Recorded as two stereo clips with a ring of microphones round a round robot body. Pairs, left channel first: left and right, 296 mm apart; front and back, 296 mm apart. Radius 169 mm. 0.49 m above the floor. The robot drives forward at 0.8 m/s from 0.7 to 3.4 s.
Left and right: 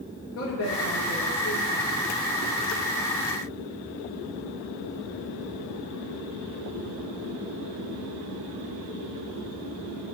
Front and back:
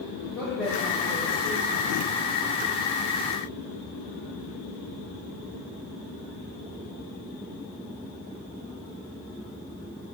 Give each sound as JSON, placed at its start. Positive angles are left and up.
{"t": 0.3, "sound": "a woman speaking", "azimuth_deg": 85, "distance_m": 1.1}